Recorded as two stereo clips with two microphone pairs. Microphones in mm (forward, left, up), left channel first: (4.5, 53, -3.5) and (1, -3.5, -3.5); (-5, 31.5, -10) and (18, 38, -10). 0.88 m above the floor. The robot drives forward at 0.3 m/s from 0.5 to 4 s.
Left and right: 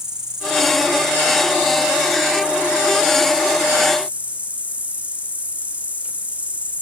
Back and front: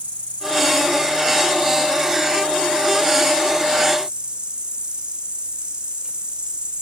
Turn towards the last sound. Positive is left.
turn(degrees=-30)